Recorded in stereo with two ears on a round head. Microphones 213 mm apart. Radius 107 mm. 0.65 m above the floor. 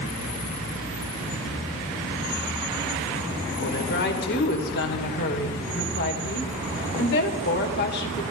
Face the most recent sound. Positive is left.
turn(degrees=50)  # may be behind; listen again after turning